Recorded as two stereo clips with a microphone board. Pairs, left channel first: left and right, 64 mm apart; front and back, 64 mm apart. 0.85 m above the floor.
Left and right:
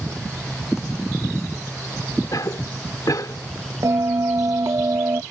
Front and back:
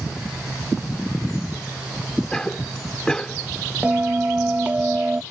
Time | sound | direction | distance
2.3 | a cough | 80° left | ?
3.8 | a bell | 115° right | ?